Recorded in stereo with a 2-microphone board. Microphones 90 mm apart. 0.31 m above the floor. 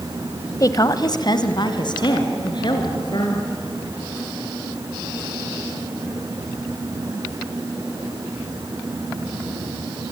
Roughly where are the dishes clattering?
I don't hear dishes clattering.